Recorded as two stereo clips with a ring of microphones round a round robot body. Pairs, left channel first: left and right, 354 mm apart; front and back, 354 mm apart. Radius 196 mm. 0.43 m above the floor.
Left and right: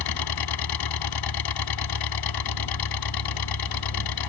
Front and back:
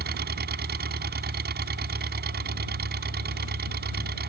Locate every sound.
0.0 s an engine running: 115° left